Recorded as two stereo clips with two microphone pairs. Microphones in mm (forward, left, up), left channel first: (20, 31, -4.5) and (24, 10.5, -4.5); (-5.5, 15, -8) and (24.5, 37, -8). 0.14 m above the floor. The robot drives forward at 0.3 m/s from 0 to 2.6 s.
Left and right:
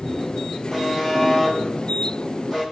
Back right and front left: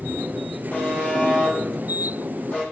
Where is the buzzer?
165° left, 1.2 m; by 2.6 s 170° left, 1.7 m.